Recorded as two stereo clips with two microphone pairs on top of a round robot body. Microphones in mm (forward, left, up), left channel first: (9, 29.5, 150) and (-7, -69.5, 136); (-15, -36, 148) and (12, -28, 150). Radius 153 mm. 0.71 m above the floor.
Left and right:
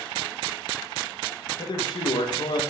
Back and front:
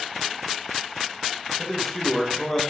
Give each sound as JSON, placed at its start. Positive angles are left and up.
{"t": 1.6, "sound": "a man speaking", "azimuth_deg": 120, "distance_m": 0.8}